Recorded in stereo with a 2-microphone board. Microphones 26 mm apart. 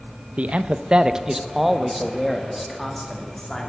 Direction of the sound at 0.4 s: 60° right (ahead or behind).